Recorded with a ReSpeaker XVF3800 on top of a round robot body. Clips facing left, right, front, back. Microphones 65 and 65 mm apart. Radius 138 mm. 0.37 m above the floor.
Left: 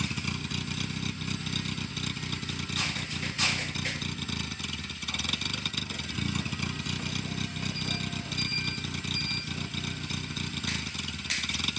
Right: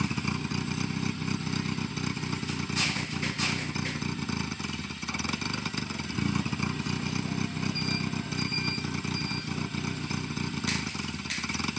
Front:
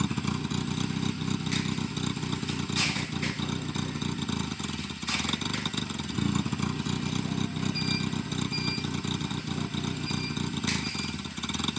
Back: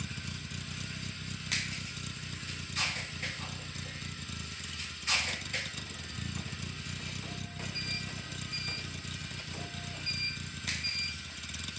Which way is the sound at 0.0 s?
25° right.